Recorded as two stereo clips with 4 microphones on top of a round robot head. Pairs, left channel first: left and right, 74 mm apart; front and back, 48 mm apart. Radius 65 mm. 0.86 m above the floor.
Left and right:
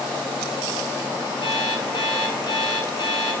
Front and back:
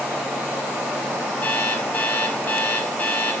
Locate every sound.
1.4 s an alarm clock: 50° left, 5 m